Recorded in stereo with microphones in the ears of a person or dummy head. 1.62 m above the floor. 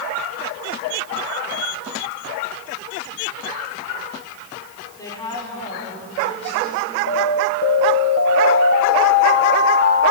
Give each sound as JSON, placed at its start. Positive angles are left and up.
{"t": 5.0, "sound": "a woman speaking", "side_deg": 15, "distance_m": 5.5}
{"t": 7.1, "sound": "an alarm", "side_deg": 70, "distance_m": 2.5}